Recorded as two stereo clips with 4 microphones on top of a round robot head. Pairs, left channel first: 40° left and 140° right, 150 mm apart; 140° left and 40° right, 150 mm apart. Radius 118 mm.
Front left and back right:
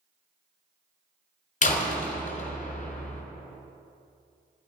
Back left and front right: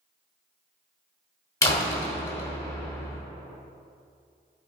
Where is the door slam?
70° left, 2 m.